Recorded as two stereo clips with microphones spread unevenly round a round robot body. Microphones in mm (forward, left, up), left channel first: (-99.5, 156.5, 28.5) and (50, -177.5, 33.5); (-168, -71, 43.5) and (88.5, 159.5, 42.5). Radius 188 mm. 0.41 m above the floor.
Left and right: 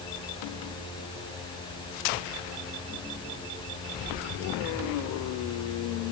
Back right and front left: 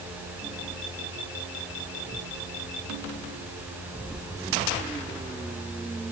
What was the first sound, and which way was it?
Only background noise.